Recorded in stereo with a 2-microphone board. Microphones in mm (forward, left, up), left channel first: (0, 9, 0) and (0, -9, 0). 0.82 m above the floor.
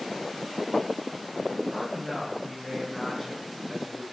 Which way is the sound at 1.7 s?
10° left (ahead or behind).